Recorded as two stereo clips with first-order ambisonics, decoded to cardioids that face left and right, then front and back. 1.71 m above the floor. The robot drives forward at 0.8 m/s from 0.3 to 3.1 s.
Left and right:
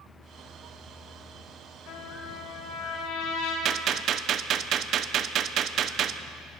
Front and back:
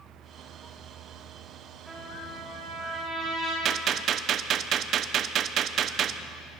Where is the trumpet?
95° left, 9 m; by 3.5 s 100° left, 9 m.